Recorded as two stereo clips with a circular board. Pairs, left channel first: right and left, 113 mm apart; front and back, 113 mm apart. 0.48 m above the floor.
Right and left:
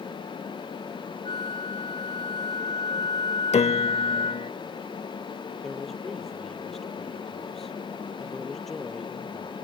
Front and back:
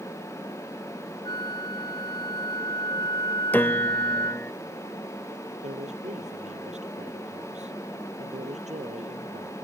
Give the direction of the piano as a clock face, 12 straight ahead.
2 o'clock.